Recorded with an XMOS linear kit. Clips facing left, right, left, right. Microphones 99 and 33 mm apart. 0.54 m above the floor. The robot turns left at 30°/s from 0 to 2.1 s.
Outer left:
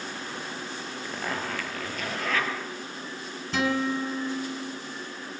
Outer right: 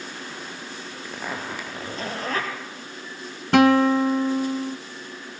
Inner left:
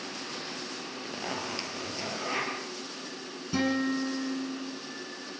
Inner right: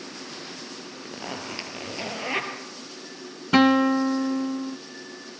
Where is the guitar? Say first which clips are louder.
Outer right 11 dB, inner right 10 dB; 60° right (ahead or behind), 1.0 m.